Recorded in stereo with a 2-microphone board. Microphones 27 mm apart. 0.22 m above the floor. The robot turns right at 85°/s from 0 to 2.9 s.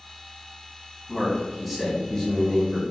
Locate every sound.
1.1 s a man speaking: 55° right, 1.7 m; by 2.8 s 95° left, 1.7 m